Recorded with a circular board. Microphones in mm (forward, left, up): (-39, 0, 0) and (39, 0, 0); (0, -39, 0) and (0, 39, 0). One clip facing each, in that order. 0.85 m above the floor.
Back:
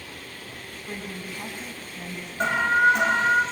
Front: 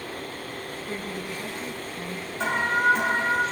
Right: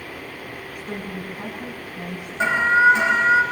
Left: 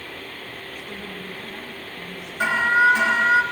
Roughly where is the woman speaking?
Behind right.